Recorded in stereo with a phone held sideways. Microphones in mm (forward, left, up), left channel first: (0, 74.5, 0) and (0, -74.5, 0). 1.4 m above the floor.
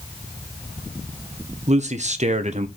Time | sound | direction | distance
1.7 | a man speaking | 50° right (ahead or behind) | 1.1 m